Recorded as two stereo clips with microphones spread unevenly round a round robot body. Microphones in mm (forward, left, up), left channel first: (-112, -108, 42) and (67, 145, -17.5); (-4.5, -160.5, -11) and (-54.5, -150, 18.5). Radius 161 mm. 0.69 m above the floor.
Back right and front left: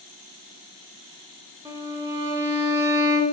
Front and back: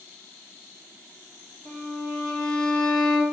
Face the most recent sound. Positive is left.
turn(degrees=130)